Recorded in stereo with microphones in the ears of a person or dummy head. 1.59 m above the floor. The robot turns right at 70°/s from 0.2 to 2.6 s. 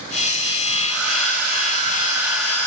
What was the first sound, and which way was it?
A hair dryer, 105° right.